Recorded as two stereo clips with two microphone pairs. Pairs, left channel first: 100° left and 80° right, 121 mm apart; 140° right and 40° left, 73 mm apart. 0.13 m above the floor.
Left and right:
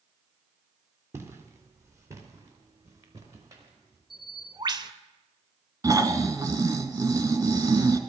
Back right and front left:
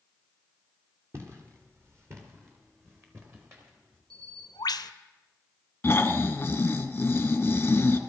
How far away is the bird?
About 0.6 m.